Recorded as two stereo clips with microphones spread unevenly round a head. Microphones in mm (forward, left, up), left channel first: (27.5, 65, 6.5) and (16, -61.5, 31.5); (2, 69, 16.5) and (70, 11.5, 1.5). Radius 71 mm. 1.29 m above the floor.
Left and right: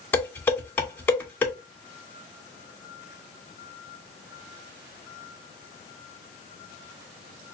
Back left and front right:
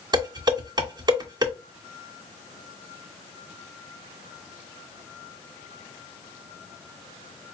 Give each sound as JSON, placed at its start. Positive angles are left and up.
{"t": 0.1, "sound": "dishes clattering", "azimuth_deg": 10, "distance_m": 2.5}